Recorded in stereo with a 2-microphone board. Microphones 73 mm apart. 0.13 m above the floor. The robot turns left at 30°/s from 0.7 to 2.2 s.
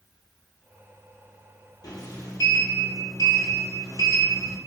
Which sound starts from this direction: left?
A sliding door, at 1.8 s.